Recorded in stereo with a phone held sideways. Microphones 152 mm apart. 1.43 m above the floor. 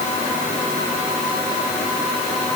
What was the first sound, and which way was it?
Only background noise.